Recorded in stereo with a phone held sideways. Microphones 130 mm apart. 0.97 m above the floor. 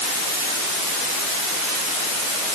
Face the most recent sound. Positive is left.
No sound to turn to.